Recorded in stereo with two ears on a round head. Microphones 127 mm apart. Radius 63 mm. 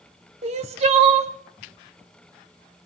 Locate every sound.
0.4 s crying: 45° right (ahead or behind), 0.8 m